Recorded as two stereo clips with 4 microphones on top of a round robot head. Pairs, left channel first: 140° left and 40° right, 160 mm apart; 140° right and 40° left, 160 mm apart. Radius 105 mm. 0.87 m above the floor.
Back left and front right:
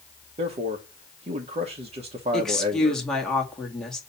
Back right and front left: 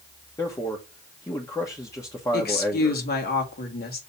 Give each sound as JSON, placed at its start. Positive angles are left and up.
{"t": 0.4, "sound": "a man speaking", "azimuth_deg": -75, "distance_m": 1.1}
{"t": 2.3, "sound": "a woman speaking", "azimuth_deg": -135, "distance_m": 2.0}